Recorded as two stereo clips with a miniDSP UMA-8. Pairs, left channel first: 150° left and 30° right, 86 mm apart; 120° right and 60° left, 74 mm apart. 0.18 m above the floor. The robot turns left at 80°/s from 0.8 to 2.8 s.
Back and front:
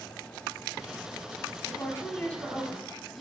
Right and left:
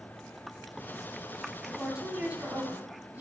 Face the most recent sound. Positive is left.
turn(degrees=55)